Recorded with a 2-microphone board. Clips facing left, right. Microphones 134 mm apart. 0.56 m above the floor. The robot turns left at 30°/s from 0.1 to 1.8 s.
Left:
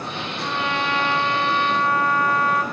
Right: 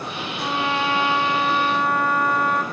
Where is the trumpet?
135° right, 1.1 m; by 2.6 s 175° right, 1.1 m.